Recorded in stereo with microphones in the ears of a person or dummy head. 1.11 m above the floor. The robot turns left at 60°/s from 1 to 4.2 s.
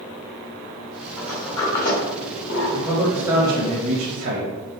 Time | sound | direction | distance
1.2 | a sliding door | 10° right (ahead or behind) | 1.7 m
2.7 | a man speaking | 15° left | 1.3 m